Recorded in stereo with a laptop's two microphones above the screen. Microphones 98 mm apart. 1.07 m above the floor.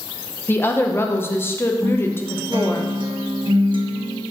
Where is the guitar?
55° right (ahead or behind), 0.7 m.